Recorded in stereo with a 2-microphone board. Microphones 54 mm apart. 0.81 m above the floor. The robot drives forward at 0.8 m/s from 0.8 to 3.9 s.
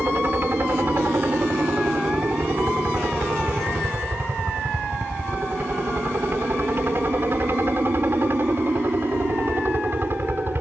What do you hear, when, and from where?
0.0 s a helicopter: 40° right (ahead or behind); by 10.6 s 45° right (ahead or behind)